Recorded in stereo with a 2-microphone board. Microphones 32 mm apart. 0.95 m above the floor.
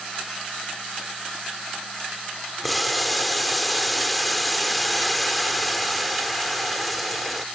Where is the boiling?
5° left (ahead or behind).